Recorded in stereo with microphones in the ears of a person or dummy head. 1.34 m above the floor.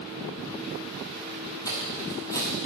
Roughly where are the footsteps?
Left.